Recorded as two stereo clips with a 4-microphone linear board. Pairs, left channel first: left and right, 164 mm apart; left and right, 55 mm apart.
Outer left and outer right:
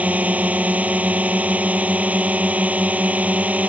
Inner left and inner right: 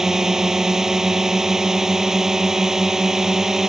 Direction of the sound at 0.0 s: 10° right (ahead or behind).